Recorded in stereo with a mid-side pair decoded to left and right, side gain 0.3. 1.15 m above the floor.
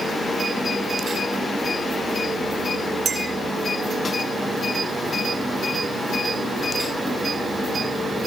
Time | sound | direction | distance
3.0 | a clink | 70° right | 2.5 m